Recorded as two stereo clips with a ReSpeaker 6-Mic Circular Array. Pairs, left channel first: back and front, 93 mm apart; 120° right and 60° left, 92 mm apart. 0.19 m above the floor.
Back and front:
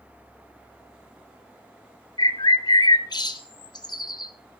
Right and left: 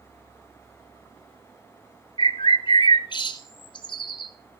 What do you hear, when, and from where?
2.2 s a bird: 145° right, 1.3 m